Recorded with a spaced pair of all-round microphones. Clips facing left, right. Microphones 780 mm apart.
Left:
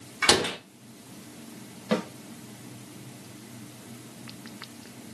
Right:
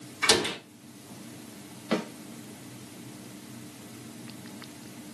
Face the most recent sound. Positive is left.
turn(degrees=70)  # may be behind; listen again after turning